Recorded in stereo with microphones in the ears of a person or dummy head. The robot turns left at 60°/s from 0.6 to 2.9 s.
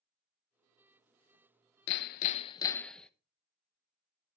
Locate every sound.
1.9 s hammering: 65° left, 0.5 m; by 3.1 s 5° left, 0.5 m